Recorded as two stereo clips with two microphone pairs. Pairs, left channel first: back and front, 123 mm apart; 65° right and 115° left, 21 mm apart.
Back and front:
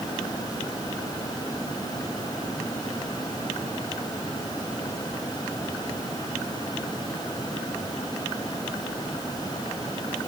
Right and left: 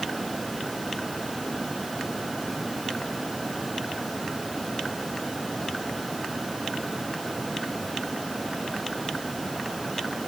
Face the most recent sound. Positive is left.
No sound to turn to.